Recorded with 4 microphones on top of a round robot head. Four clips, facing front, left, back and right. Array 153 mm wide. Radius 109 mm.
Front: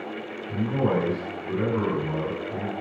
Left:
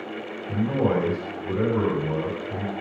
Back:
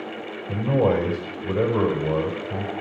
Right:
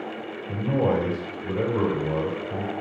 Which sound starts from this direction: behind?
A man speaking, at 0.5 s.